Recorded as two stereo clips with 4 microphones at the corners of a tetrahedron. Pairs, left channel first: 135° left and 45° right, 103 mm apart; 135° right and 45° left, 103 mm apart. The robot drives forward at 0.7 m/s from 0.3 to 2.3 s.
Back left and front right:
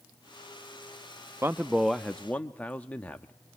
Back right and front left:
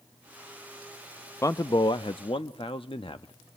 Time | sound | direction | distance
1.4 | a man speaking | 90° right | 0.5 m